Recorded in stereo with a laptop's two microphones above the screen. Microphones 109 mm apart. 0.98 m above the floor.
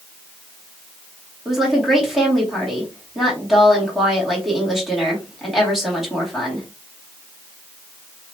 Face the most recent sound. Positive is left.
turn(degrees=0)  # may be behind; listen again after turning